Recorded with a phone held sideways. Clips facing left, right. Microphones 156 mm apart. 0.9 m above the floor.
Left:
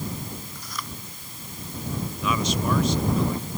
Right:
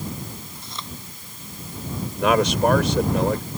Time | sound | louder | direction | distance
0.6 | chewing | even | 25° right (ahead or behind) | ?
2.2 | a man speaking | right 9 dB | 80° right | ?